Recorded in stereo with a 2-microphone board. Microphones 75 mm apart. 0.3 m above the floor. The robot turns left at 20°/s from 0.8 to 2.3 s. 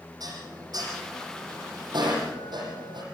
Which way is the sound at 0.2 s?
60° right (ahead or behind).